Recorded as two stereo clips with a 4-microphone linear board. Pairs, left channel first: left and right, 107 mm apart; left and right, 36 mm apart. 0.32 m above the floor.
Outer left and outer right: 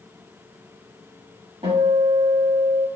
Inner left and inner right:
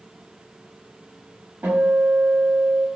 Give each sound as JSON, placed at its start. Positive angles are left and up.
{"t": 1.6, "sound": "a guitar", "side_deg": -65, "distance_m": 0.9}